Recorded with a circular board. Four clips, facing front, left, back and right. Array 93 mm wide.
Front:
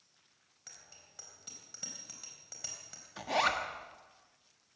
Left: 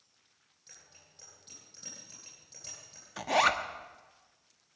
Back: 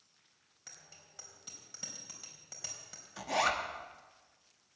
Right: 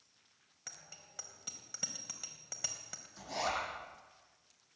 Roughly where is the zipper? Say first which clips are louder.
Left 10 dB, front 1 dB; left.